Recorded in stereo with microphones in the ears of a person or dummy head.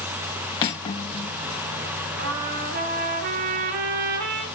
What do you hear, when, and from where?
0.6 s cutlery clinking: 30° left (ahead or behind), 0.6 m
2.2 s a trumpet: 55° right (ahead or behind), 1.6 m